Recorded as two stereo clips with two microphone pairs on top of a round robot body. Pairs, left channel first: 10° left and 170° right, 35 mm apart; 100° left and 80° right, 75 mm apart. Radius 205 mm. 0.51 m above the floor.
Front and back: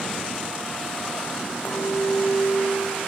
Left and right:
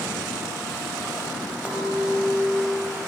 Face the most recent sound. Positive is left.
turn(degrees=0)